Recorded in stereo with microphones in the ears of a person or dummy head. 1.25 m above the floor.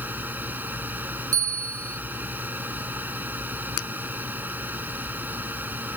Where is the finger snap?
60° left (ahead or behind).